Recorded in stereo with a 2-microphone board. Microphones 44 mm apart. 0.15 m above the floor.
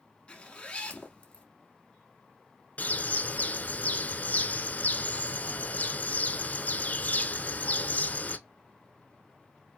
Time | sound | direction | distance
0.3 | a zipper | 25° left (ahead or behind) | 1.0 m
2.8 | a bird | 40° left (ahead or behind) | 0.6 m